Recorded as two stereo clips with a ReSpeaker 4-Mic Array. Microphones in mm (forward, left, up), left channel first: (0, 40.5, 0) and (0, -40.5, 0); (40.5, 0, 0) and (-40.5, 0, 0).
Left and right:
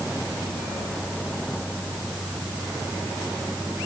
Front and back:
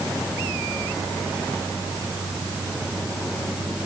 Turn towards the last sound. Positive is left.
No sound to turn to.